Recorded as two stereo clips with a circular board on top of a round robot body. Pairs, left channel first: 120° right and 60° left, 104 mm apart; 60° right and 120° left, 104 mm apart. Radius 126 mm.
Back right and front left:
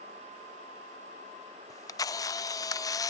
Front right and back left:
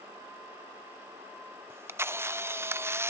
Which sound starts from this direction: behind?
A camera shutter, at 1.7 s.